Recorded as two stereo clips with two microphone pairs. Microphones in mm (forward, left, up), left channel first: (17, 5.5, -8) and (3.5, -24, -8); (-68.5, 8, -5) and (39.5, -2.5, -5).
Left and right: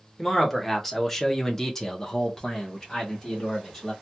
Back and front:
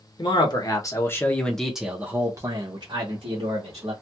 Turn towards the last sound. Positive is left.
turn(degrees=-10)